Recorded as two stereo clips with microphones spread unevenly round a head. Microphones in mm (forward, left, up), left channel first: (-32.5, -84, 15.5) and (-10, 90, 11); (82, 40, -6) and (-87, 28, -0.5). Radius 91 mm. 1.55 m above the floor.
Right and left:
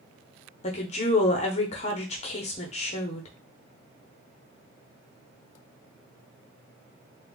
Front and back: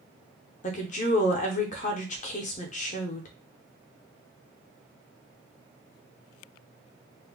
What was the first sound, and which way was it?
A woman speaking, 45° right.